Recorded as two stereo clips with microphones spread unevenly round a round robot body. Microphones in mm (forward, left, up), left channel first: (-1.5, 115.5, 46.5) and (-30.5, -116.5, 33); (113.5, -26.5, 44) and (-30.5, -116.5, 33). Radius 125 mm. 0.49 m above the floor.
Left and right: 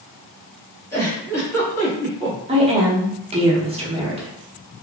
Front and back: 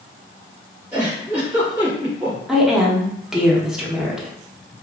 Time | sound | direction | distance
0.9 | a giggle | 155° left | 1.3 m
2.5 | a woman speaking | 70° right | 0.8 m